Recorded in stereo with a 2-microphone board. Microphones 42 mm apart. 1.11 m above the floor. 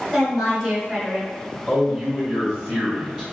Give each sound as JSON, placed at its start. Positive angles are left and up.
{"t": 0.1, "sound": "a woman speaking", "side_deg": -20, "distance_m": 1.6}
{"t": 1.7, "sound": "a man speaking", "side_deg": -20, "distance_m": 1.7}